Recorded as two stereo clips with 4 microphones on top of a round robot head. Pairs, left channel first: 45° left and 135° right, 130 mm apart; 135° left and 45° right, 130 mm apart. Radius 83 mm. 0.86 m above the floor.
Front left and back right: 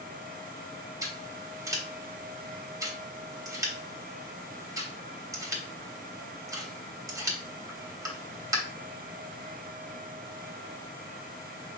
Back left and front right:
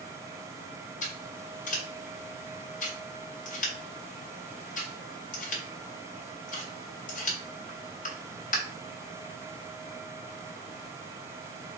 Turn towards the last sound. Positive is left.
turn(degrees=160)